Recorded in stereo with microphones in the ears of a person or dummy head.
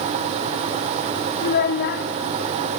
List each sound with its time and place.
1.4 s a child speaking: 55° left (ahead or behind), 0.9 m